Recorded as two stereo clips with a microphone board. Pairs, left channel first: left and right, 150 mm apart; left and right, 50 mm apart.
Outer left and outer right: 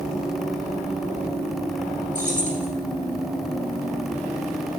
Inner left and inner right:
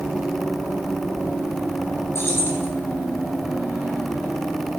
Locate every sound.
2.1 s keys jangling: 60° left (ahead or behind), 2.5 m